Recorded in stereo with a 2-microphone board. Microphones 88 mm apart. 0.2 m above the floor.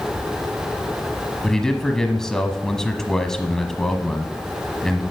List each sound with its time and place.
1.4 s a man speaking: 5° left (ahead or behind), 1.1 m